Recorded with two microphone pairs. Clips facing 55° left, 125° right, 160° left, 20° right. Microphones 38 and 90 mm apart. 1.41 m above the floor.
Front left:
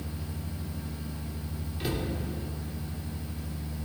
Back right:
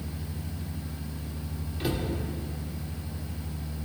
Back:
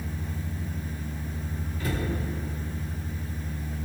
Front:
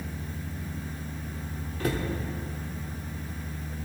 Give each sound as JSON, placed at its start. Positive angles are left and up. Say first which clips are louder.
{"t": 1.8, "sound": "a cupboard door", "louder": "back right 2 dB, front 2 dB", "azimuth_deg": -35, "distance_m": 1.8}